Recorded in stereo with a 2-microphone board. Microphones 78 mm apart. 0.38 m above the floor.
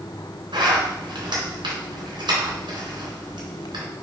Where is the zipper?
70° right (ahead or behind), 3.5 m.